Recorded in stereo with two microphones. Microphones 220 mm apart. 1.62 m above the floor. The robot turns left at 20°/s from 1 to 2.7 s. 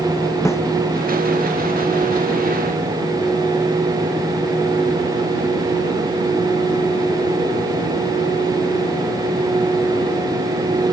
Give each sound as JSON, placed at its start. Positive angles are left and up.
{"t": 0.5, "sound": "a snare drum", "side_deg": 10}